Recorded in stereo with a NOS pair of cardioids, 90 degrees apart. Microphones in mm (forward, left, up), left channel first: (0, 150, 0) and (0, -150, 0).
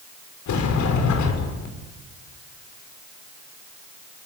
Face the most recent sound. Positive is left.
turn(degrees=70)